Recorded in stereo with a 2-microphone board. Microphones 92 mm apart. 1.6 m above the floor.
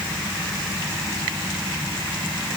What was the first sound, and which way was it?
Only background noise.